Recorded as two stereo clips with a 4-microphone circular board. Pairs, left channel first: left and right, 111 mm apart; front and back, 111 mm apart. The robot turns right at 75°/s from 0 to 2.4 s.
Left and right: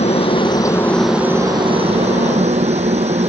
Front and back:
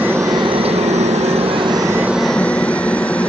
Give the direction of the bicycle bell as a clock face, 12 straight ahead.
I don't hear a bicycle bell.